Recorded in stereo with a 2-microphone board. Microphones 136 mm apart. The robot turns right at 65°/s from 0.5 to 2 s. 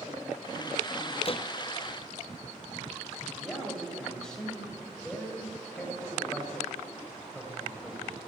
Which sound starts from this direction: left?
A door slam, at 1.2 s.